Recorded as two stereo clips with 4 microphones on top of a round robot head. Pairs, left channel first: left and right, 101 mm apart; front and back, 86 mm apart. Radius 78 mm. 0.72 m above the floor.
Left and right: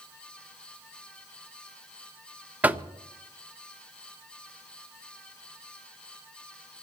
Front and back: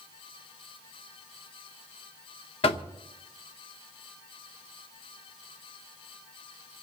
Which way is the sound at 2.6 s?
15° right.